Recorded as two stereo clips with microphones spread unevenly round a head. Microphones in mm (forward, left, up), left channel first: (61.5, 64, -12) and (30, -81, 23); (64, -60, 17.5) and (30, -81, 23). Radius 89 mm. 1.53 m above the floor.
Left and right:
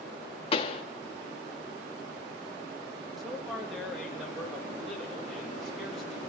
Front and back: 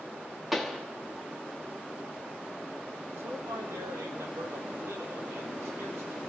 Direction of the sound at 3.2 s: 170° left.